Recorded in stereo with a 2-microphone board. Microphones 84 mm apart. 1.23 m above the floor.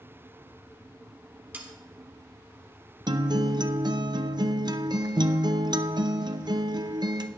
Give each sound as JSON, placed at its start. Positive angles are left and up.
{"t": 1.5, "sound": "sawing", "side_deg": -20, "distance_m": 1.4}
{"t": 3.1, "sound": "a guitar", "side_deg": -60, "distance_m": 0.6}